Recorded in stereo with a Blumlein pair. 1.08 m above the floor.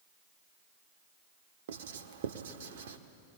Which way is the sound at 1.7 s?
60° right.